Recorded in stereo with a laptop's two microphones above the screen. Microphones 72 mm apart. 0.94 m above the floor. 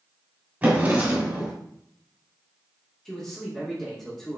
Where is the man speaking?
Centre (ahead or behind), 1.3 m.